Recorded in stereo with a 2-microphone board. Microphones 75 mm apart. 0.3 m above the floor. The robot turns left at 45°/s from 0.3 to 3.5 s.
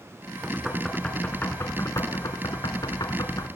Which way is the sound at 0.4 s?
15° right (ahead or behind).